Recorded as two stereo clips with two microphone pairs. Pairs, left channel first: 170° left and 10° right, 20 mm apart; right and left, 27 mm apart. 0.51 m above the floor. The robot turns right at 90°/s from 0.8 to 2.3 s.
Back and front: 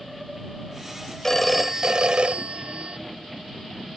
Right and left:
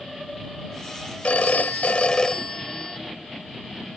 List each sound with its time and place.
1.2 s a phone ringing: 125° right; by 3.0 s 30° right